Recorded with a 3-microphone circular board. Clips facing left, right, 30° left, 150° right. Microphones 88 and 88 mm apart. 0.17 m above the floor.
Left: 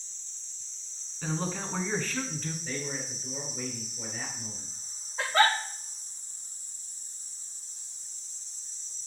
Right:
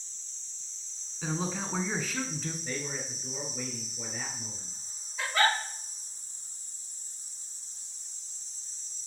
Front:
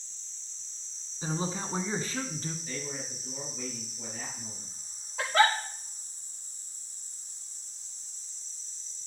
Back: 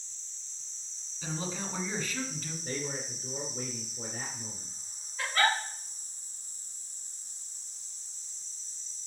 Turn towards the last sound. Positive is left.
turn(degrees=30)